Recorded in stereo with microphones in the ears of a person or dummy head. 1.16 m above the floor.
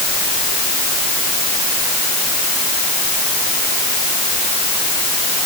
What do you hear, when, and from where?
Only background noise.